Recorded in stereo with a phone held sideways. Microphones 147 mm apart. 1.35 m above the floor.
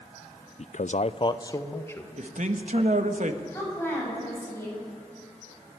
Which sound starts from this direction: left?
A man speaking, at 0.6 s.